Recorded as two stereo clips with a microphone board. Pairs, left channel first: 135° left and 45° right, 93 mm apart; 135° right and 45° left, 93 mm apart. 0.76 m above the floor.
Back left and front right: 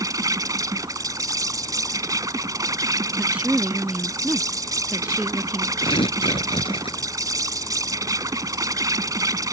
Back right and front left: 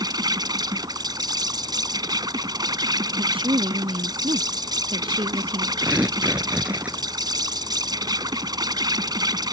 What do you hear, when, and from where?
0.0 s an insect: 5° left
3.1 s a woman speaking: 30° left
5.8 s tearing paper: 120° left